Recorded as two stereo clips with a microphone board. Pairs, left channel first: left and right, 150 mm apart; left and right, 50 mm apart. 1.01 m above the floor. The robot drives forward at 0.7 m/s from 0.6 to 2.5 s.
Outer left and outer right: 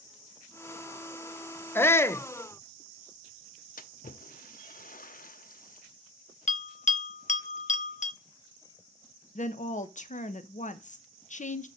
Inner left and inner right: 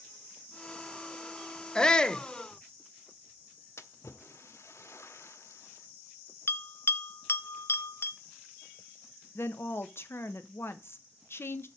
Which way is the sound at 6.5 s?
50° left (ahead or behind).